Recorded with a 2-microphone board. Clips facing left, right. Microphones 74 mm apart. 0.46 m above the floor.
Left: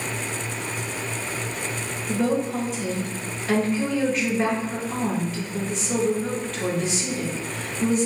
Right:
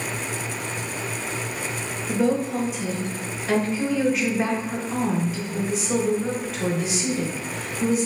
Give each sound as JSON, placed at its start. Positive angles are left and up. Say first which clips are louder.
{"t": 2.1, "sound": "a woman speaking", "louder": "right 1 dB", "side_deg": -5, "distance_m": 0.8}